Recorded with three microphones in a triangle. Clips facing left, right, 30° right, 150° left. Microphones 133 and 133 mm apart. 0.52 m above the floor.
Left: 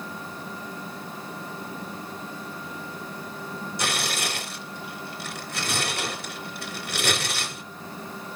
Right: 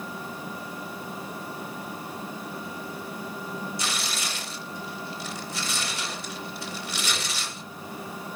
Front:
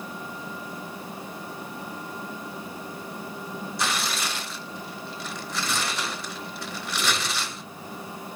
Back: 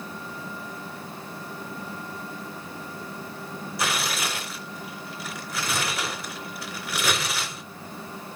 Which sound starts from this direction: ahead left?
Tearing paper, at 3.8 s.